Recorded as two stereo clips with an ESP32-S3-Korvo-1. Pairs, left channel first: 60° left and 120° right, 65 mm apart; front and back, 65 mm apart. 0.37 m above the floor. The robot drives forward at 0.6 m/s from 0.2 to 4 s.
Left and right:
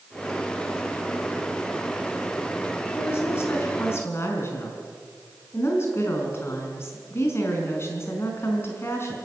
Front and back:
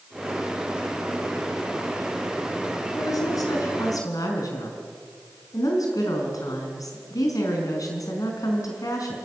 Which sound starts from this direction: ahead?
A woman speaking, at 3.0 s.